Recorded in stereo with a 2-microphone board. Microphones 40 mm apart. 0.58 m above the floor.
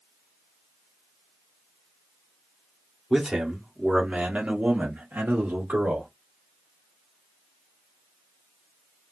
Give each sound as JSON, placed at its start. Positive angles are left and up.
{"t": 3.1, "sound": "a man speaking", "side_deg": -10, "distance_m": 1.4}